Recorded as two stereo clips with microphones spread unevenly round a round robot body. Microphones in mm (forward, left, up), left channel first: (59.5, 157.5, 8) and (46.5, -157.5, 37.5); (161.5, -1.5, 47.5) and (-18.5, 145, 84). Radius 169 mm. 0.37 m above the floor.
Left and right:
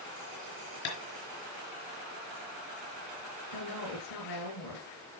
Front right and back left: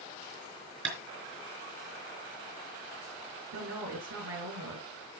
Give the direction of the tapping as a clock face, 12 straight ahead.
9 o'clock.